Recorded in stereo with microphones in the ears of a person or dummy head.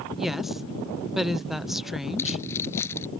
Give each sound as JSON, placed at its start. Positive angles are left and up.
{"t": 0.1, "sound": "a woman speaking", "side_deg": -5}
{"t": 2.2, "sound": "keys jangling", "side_deg": 15}